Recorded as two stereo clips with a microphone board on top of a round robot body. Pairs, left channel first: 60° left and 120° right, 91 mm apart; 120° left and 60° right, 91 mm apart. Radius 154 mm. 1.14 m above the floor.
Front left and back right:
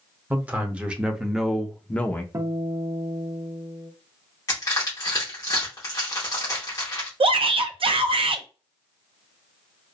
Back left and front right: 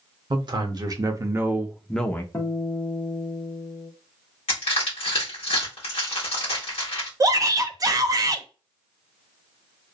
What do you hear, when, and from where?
0.3 s a man speaking: 55° right, 1.0 m; by 2.2 s 95° left, 0.6 m
2.3 s a guitar: 175° right, 0.7 m
4.5 s crushing: 115° left, 0.7 m
7.2 s a shout: 110° right, 0.6 m